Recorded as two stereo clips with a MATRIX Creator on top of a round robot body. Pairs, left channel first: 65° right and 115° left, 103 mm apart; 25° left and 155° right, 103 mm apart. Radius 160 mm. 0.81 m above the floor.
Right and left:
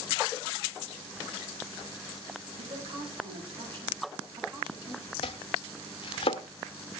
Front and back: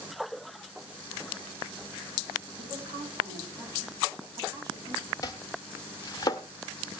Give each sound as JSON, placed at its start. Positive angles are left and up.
{"t": 2.6, "sound": "a woman speaking", "azimuth_deg": 135, "distance_m": 9.5}
{"t": 5.2, "sound": "chopping", "azimuth_deg": -35, "distance_m": 0.6}